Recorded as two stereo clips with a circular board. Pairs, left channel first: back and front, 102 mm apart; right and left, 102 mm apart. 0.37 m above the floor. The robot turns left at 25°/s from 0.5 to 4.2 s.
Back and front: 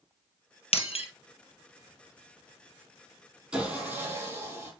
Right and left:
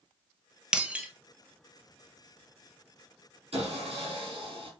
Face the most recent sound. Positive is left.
turn(degrees=60)